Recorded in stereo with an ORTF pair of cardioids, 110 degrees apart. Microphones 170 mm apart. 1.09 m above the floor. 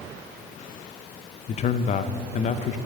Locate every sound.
1.5 s a man speaking: 45° left, 0.6 m